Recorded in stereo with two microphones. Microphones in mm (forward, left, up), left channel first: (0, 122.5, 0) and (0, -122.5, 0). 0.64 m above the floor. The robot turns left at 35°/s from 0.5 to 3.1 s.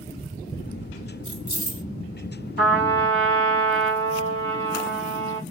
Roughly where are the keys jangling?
Left.